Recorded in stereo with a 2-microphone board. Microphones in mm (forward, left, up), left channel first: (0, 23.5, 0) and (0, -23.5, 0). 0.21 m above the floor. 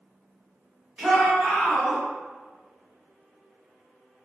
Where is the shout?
10° right (ahead or behind), 1.9 m; by 2.0 s 5° right (ahead or behind), 1.5 m.